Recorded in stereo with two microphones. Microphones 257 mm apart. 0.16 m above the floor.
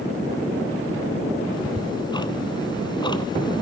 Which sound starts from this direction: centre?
Ticking, at 1.5 s.